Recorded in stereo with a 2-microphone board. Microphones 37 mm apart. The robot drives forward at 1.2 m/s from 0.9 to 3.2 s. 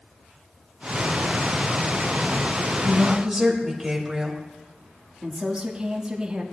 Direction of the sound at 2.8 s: 10° right (ahead or behind).